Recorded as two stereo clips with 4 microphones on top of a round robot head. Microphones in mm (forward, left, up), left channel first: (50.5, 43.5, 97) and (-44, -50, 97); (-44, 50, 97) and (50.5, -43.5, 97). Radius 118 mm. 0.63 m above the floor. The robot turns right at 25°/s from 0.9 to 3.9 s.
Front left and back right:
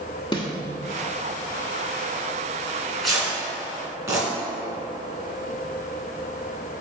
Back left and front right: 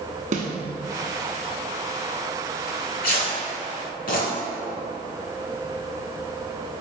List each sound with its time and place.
0.3 s a snare drum: 10° right, 1.1 m
2.7 s tearing paper: 125° left, 2.5 m; by 4.3 s 155° left, 2.5 m